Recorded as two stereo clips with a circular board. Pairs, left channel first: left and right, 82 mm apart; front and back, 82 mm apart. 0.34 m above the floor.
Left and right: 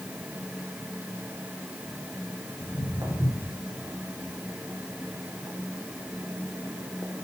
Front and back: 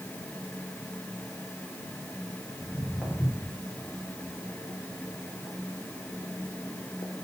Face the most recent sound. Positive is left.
turn(degrees=25)